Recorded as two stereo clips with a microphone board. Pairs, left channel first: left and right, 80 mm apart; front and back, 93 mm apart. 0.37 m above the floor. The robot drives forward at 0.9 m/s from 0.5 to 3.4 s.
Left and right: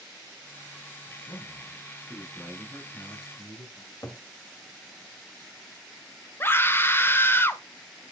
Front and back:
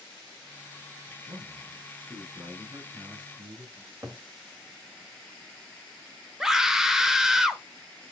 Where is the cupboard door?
130° left, 2.0 m.